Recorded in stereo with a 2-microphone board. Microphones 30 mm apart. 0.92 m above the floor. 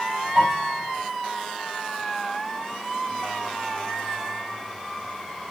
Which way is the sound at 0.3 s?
45° right (ahead or behind).